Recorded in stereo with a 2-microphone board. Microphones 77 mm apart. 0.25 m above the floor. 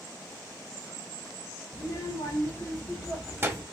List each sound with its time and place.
1.7 s a child speaking: 70° left (ahead or behind), 2 m; by 3.6 s 45° right (ahead or behind), 1.1 m